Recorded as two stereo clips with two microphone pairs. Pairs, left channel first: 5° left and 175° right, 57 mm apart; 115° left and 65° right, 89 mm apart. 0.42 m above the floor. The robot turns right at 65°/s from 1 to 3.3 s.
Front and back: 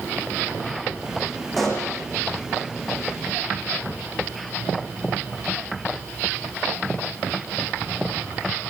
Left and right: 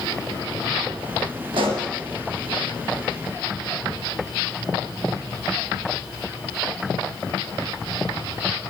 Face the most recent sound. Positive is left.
turn(degrees=25)